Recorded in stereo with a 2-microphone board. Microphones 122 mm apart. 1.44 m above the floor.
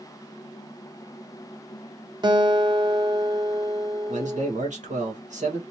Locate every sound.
2.2 s a guitar: 40° right (ahead or behind), 1.0 m
4.1 s a man speaking: 85° right, 1.3 m